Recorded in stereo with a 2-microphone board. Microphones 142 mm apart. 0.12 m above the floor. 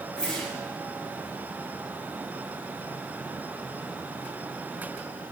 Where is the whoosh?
5° left (ahead or behind), 7 m.